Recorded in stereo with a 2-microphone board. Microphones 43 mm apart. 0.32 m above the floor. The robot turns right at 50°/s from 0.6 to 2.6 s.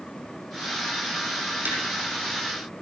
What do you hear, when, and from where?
1.6 s tapping: 35° right (ahead or behind), 5.5 m; by 1.8 s 40° right (ahead or behind), 5.5 m